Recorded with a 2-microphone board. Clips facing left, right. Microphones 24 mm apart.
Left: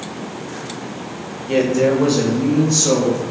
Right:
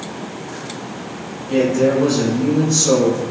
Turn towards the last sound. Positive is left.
turn(degrees=15)  # may be behind; listen again after turning